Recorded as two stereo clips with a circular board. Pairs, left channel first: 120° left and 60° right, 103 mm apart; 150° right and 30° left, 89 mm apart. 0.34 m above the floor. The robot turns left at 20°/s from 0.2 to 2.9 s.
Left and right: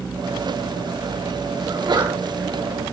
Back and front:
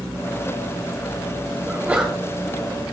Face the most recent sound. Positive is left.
turn(degrees=-60)